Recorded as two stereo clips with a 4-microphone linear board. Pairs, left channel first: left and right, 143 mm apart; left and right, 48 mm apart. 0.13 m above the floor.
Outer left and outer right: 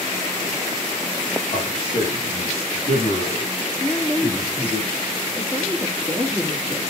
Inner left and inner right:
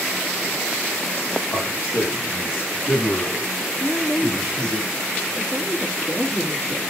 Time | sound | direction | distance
1.5 | a man speaking | 55° left (ahead or behind) | 7 m
3.8 | a woman speaking | 15° left (ahead or behind) | 2.5 m